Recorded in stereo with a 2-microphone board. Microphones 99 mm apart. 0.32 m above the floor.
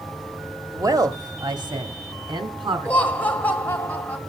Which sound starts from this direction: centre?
Laughter, at 2.9 s.